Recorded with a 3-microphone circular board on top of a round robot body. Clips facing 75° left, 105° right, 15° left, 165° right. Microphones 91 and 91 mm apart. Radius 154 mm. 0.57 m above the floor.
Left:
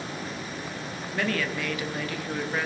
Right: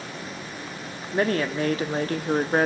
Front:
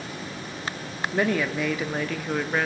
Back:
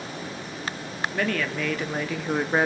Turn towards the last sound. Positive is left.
turn(degrees=-115)